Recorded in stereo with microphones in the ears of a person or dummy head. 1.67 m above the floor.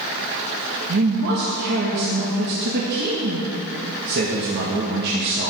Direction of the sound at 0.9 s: 60° right (ahead or behind).